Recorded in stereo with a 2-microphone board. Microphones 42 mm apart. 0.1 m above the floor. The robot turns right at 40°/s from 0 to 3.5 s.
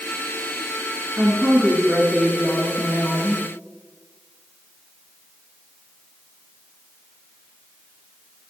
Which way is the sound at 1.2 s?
20° right (ahead or behind).